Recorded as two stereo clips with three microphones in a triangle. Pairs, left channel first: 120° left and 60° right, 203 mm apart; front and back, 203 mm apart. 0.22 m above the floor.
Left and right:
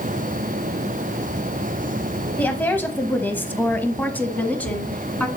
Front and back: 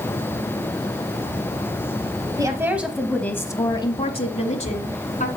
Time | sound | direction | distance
2.4 | a woman speaking | straight behind | 0.9 m